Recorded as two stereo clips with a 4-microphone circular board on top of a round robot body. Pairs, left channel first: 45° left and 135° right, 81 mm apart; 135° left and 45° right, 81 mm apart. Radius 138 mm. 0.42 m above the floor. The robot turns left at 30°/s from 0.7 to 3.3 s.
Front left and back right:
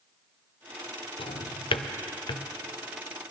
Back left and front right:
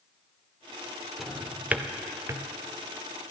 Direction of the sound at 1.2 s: 45° left.